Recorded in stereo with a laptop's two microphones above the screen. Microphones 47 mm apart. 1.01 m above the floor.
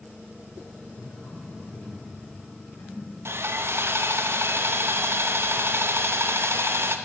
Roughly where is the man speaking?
Left.